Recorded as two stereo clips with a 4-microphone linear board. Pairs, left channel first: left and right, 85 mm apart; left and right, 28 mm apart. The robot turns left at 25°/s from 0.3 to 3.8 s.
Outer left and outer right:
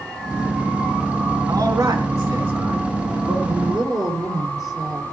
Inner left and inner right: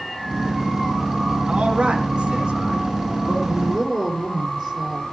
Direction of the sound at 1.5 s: 45° right (ahead or behind).